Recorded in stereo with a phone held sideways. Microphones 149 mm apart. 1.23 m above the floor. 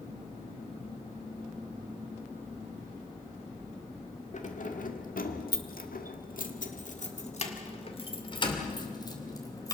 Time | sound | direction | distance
4.3 | keys jangling | 55° left (ahead or behind) | 2 m